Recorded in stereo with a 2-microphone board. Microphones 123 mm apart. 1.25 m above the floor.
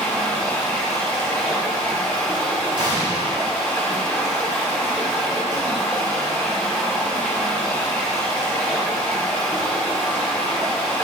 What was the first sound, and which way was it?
Running water, 15° left (ahead or behind).